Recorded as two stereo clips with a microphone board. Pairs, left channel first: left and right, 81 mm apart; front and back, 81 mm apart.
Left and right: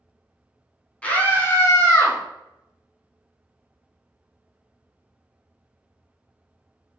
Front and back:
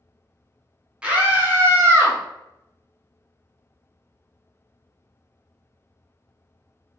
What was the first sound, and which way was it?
A scream, 130° left.